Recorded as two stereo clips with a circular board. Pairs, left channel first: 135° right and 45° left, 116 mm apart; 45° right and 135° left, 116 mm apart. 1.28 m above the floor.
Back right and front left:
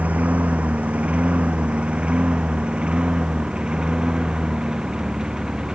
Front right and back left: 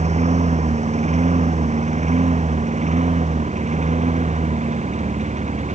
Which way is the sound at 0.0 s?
125° left.